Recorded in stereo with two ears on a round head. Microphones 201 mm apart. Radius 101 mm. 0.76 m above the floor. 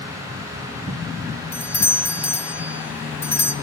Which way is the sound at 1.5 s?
10° left (ahead or behind).